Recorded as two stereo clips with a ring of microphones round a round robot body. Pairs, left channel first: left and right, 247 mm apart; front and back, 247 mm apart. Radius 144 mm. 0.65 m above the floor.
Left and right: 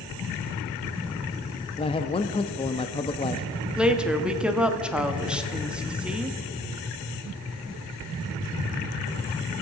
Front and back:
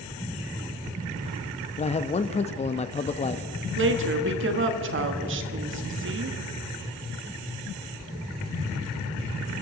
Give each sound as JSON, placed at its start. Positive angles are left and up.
{"t": 1.8, "sound": "a man speaking", "azimuth_deg": 40, "distance_m": 0.6}
{"t": 3.8, "sound": "a woman speaking", "azimuth_deg": -175, "distance_m": 1.3}